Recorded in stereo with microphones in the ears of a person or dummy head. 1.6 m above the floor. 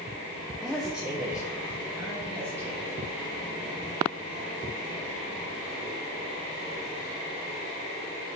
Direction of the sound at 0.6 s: 5° left (ahead or behind).